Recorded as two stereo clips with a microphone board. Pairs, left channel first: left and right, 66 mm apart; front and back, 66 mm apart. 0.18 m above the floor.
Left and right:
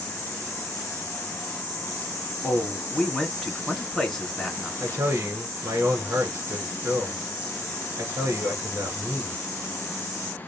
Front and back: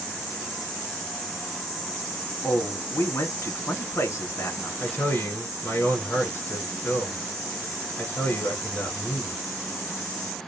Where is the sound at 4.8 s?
50° right, 2.5 m.